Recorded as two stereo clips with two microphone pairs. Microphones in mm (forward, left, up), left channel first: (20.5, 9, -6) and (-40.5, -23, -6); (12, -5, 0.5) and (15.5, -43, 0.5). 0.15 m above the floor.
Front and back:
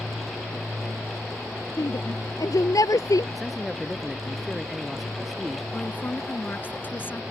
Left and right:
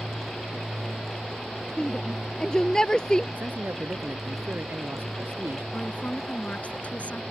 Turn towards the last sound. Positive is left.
turn(degrees=75)